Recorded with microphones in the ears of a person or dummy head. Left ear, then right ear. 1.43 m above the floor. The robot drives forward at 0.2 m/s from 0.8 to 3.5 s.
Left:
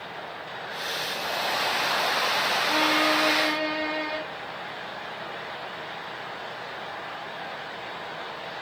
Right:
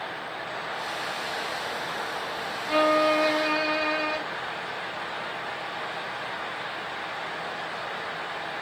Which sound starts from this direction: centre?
A violin, at 2.7 s.